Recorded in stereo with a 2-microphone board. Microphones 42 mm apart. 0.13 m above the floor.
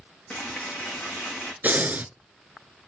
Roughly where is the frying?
Left.